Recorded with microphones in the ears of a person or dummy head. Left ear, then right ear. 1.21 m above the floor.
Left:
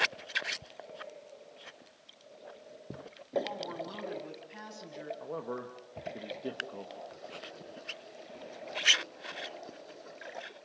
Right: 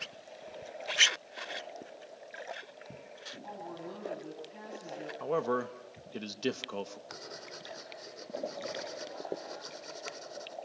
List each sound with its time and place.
3.4 s a woman speaking: 35° left (ahead or behind), 7 m; by 5.1 s 25° left (ahead or behind), 8.5 m
5.2 s a man speaking: 80° right, 1.0 m
7.1 s writing: 60° right (ahead or behind), 2.0 m